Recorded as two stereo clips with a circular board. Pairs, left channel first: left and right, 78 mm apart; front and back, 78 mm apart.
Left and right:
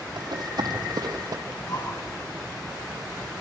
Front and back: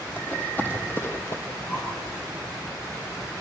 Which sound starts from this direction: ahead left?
Breathing, at 1.5 s.